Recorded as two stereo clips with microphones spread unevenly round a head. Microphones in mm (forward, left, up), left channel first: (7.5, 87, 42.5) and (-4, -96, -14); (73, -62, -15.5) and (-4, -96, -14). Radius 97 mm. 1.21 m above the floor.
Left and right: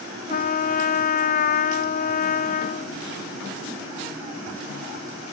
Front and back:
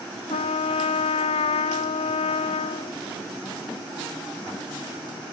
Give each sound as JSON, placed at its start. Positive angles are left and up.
{"t": 0.3, "sound": "a trumpet", "azimuth_deg": 35, "distance_m": 0.6}